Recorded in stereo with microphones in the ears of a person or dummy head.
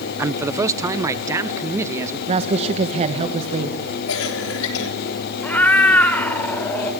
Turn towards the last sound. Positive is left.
turn(degrees=10)  # may be behind; listen again after turning